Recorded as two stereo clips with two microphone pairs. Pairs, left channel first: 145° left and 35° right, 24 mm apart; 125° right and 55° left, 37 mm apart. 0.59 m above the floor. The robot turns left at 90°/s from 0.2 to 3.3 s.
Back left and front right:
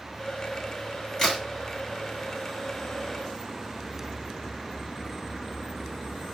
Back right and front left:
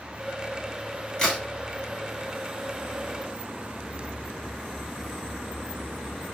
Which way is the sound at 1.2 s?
Straight behind.